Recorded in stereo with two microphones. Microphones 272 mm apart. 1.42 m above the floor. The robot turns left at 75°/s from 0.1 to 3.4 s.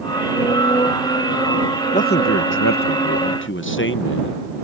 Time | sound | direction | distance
1.9 | a man speaking | 155° left | ?